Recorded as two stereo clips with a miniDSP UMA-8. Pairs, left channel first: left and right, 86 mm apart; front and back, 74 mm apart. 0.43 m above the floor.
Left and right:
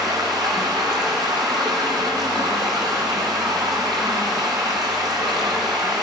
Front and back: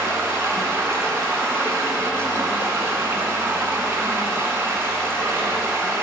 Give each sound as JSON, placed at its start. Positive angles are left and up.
{"t": 0.0, "sound": "running water", "azimuth_deg": -130, "distance_m": 2.5}